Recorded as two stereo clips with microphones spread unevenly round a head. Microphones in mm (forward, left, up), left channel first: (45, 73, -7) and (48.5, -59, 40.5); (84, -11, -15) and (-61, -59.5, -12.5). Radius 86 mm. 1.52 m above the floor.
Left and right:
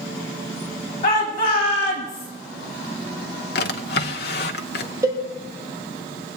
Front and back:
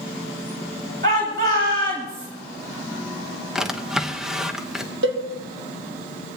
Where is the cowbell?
160° right, 1.6 m.